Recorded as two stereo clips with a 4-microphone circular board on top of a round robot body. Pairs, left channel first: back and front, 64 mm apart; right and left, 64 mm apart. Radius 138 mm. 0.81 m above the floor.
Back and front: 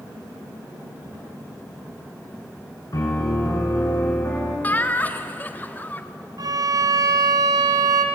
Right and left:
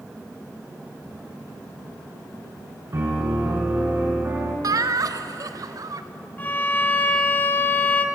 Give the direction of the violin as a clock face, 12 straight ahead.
1 o'clock.